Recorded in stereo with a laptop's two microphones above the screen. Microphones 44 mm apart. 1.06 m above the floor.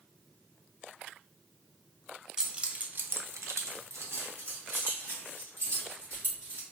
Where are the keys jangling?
15° right (ahead or behind), 0.7 m; by 6.6 s 40° right (ahead or behind), 2 m.